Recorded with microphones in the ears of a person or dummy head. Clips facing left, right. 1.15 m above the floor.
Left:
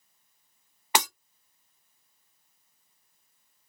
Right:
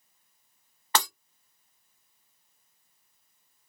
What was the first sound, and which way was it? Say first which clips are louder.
Breaking glass: left 1 dB; 15° left (ahead or behind).